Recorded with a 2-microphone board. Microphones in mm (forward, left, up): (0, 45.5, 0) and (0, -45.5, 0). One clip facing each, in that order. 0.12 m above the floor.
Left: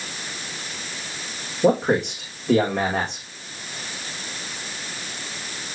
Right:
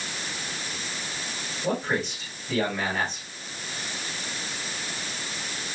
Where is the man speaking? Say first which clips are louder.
Left 9 dB; 75° left (ahead or behind), 6 m.